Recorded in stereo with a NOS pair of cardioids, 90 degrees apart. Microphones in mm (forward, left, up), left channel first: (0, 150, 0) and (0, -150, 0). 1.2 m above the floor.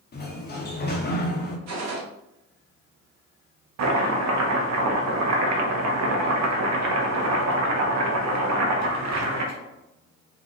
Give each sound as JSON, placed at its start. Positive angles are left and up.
{"t": 0.1, "sound": "a sliding door", "azimuth_deg": 35, "distance_m": 1.0}
{"t": 1.7, "sound": "a gunshot", "azimuth_deg": -60, "distance_m": 1.0}
{"t": 3.8, "sound": "chopping", "azimuth_deg": -65, "distance_m": 0.9}